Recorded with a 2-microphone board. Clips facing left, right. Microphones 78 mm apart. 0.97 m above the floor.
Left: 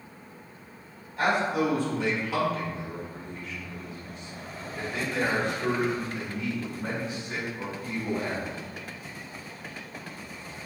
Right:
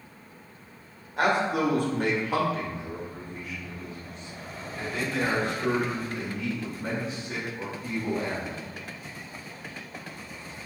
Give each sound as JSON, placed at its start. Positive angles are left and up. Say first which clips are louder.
{"t": 1.2, "sound": "a man speaking", "louder": "right 1 dB", "side_deg": -75, "distance_m": 1.2}